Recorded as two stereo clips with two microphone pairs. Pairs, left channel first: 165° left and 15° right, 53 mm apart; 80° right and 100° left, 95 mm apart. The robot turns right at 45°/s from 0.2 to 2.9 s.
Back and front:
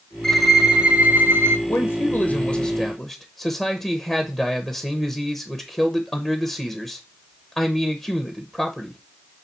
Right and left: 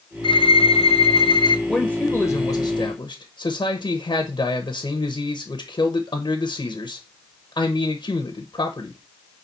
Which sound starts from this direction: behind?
A man speaking, at 1.7 s.